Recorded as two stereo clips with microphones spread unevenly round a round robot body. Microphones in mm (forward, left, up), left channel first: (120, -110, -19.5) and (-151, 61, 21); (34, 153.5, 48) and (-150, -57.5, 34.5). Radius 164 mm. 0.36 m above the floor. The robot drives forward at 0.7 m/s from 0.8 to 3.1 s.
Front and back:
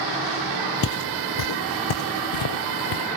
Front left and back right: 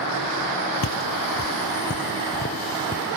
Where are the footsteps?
25° left; by 3.0 s 15° right.